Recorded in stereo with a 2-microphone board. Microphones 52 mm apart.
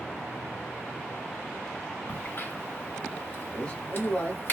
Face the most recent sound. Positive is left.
turn(degrees=20)  # may be behind; listen again after turning